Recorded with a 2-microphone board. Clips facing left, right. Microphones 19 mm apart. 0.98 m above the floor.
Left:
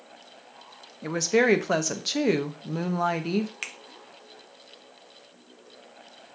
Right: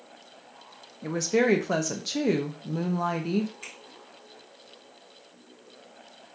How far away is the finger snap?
About 0.7 m.